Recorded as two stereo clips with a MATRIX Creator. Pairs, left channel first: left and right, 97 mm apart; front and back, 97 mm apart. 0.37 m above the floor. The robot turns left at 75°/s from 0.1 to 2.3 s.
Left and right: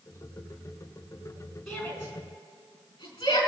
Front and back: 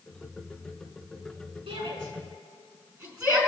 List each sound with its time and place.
1.7 s a shout: 175° left, 4.5 m; by 3.5 s 125° left, 4.5 m